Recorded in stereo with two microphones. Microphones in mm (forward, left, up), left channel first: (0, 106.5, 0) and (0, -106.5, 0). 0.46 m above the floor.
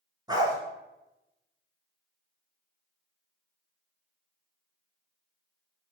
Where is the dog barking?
20° right (ahead or behind), 1.7 m.